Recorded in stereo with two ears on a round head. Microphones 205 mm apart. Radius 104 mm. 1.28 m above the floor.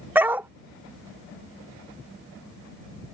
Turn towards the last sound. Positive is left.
turn(degrees=-10)  # may be behind; listen again after turning